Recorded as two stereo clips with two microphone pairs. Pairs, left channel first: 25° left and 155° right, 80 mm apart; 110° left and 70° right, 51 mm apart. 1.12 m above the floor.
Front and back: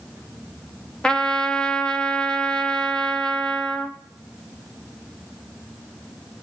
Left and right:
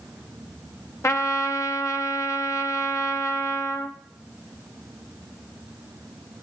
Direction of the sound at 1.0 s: 105° left.